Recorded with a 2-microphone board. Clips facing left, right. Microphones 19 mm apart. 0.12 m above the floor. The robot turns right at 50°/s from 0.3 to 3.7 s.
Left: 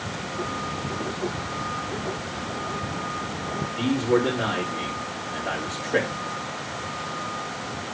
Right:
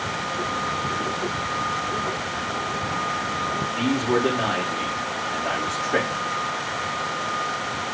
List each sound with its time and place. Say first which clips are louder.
3.8 s a man speaking: left 1 dB; 55° right (ahead or behind), 7.5 m